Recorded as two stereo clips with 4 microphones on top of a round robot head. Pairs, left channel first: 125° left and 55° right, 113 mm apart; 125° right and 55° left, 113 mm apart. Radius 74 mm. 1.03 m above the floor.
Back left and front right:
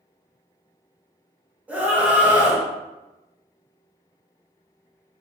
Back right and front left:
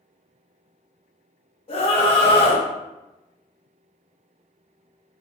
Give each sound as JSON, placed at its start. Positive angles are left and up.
{"t": 1.7, "sound": "a scream", "azimuth_deg": -130, "distance_m": 1.2}